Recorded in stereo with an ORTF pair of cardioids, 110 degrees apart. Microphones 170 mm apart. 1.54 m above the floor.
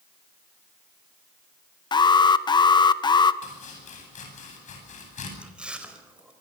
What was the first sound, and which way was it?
An alarm, 25° left.